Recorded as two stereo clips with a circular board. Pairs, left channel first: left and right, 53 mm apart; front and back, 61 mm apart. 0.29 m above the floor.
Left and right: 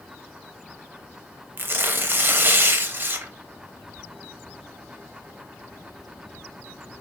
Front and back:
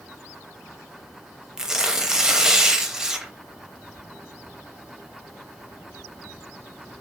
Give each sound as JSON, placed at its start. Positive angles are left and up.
{"t": 1.6, "sound": "tearing paper", "azimuth_deg": -105, "distance_m": 0.5}